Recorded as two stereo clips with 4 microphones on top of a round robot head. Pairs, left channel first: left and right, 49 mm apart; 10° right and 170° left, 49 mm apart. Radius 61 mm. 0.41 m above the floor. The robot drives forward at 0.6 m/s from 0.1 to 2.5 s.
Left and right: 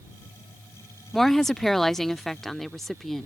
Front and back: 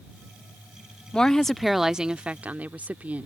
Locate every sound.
1.1 s a woman speaking: 15° left; by 3.3 s 170° left